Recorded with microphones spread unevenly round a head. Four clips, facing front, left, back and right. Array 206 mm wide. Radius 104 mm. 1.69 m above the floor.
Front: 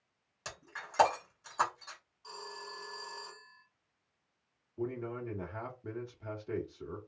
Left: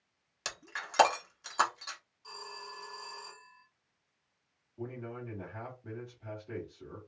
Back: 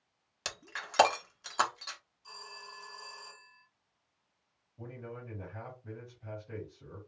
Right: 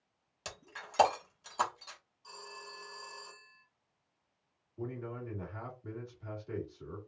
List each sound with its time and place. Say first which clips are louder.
0.5 s breaking glass: left 5 dB, back 3 dB; 175° left, 1.2 m
2.2 s a phone ringing: left 3 dB, front 4 dB; 5° left, 1.7 m
4.8 s a man speaking: right 1 dB, front 8 dB; 5° right, 1.7 m